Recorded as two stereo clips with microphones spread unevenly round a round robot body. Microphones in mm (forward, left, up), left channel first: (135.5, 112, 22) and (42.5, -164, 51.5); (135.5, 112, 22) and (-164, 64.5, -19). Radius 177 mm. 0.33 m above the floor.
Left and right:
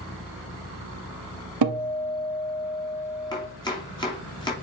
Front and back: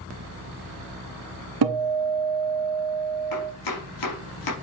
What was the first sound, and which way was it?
A guitar, 135° right.